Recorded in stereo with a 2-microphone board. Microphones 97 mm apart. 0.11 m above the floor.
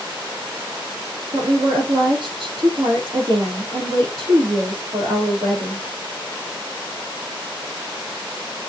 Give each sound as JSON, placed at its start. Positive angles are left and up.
{"t": 1.3, "sound": "a woman speaking", "side_deg": -65, "distance_m": 3.5}